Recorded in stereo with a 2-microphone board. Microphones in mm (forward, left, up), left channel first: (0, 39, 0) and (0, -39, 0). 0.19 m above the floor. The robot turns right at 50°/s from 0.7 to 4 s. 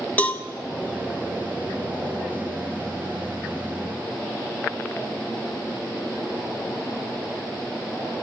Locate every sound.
0.2 s a cowbell: 20° left (ahead or behind), 0.8 m